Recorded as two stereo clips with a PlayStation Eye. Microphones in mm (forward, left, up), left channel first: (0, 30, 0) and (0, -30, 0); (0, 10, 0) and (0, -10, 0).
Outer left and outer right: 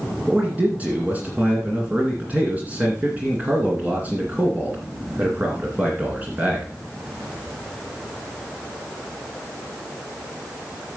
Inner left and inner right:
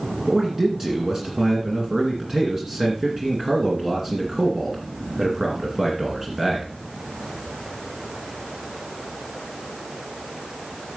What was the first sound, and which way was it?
A man speaking, 25° right (ahead or behind).